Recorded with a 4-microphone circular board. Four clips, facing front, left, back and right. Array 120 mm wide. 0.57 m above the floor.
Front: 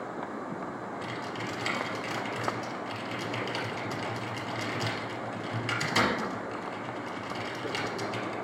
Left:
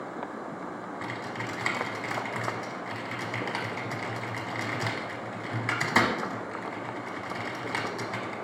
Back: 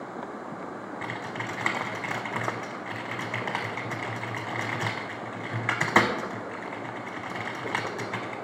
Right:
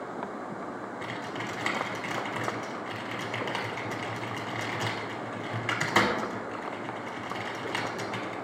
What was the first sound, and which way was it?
Typing on a keyboard, 175° left.